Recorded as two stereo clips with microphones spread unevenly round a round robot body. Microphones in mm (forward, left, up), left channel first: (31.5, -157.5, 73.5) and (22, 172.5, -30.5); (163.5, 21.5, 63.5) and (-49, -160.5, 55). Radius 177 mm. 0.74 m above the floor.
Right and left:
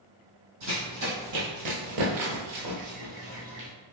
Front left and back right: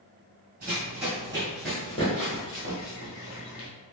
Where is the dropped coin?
No dropped coin in this recording.